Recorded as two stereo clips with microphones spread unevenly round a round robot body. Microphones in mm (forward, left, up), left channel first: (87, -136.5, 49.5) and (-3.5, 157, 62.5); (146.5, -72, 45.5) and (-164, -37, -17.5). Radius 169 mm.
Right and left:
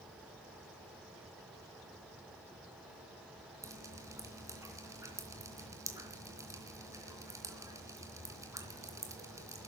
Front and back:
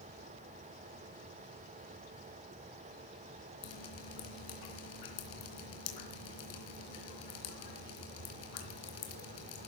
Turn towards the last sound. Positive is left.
turn(degrees=25)